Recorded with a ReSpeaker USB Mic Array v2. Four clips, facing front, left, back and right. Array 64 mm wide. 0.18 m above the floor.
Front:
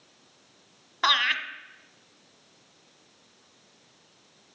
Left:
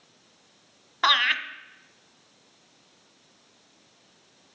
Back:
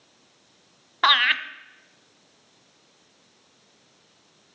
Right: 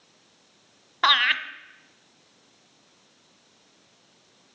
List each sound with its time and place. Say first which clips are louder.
1.0 s laughter: right 1 dB, back 5 dB; 165° right, 1.0 m